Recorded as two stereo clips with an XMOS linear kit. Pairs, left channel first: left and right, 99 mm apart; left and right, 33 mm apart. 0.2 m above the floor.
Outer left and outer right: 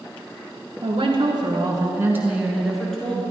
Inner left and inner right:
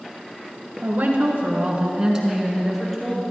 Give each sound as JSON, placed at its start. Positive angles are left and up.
{"t": 0.8, "sound": "a woman speaking", "side_deg": -60, "distance_m": 2.0}